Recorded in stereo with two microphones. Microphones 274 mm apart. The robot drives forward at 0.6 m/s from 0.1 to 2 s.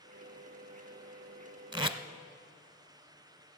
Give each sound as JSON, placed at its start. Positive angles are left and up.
{"t": 1.7, "sound": "tape being pulled", "side_deg": -15, "distance_m": 0.7}